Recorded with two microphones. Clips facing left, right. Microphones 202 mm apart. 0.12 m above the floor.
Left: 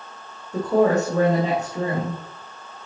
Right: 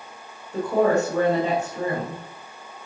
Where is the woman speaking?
40° left (ahead or behind), 3 m.